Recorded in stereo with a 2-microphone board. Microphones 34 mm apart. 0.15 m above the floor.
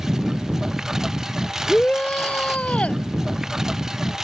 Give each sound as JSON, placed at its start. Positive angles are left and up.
{"t": 0.0, "sound": "a lawn mower", "side_deg": -15}
{"t": 1.7, "sound": "a shout", "side_deg": 40}